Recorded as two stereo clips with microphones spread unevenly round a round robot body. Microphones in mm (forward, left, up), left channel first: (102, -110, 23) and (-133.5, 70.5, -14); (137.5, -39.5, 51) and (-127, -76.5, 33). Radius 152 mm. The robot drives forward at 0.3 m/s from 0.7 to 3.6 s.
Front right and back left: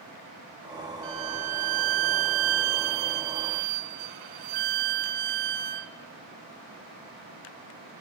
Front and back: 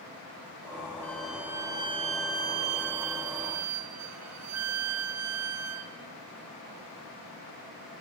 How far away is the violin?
About 0.7 m.